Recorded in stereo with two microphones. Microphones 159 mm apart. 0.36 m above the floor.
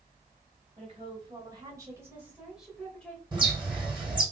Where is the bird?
30° right (ahead or behind), 2.5 m.